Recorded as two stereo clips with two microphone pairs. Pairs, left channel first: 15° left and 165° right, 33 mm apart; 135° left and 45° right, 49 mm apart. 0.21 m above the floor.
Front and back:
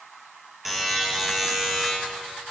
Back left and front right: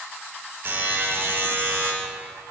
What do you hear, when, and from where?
0.7 s a buzzer: 80° right, 5.5 m